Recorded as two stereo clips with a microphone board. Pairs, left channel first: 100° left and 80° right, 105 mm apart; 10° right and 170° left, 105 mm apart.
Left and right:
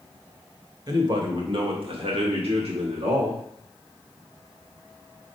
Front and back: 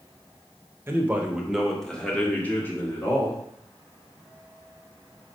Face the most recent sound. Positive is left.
turn(degrees=-70)